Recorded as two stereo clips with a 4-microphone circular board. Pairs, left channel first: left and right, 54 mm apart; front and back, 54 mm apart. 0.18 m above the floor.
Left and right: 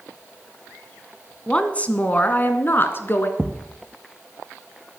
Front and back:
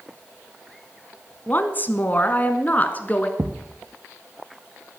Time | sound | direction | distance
1.5 | a woman speaking | 30° left | 1.4 m
3.4 | a thud | 160° right | 1.0 m